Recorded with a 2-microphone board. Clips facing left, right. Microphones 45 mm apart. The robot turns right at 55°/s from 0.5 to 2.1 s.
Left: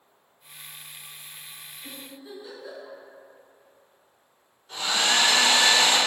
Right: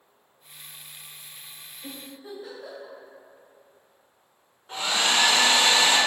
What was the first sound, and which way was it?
A giggle, 55° right (ahead or behind).